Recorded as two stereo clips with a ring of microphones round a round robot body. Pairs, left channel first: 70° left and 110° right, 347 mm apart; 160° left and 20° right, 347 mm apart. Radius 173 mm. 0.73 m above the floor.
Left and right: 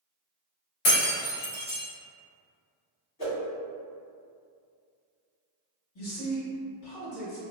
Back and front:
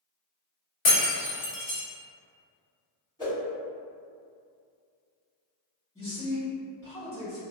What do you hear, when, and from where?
0.8 s breaking glass: 110° left, 1.3 m
3.2 s a whoosh: 80° left, 1.8 m
6.0 s a man speaking: 75° left, 1.9 m